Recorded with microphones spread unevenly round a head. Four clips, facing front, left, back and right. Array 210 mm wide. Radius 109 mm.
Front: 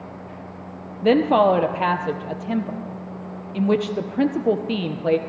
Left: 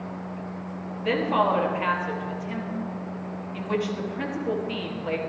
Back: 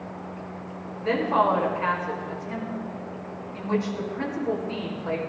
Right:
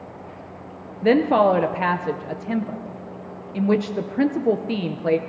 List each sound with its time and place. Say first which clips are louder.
1.0 s a woman speaking: right 7 dB, front 6 dB; 40° right, 0.8 m